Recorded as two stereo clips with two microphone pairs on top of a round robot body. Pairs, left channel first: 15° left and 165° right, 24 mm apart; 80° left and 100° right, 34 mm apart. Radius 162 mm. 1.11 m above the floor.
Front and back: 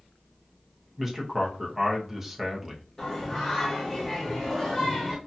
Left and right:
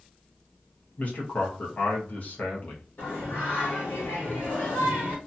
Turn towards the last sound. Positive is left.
turn(degrees=90)